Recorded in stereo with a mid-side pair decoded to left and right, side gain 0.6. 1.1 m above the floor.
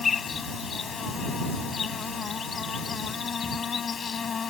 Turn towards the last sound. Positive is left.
turn(degrees=35)